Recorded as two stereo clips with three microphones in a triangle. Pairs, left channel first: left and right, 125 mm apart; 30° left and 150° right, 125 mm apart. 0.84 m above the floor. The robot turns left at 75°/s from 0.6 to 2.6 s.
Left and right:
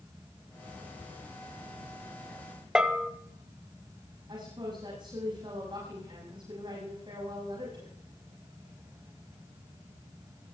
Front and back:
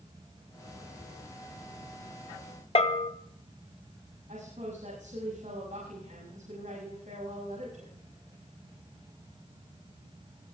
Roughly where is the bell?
Ahead.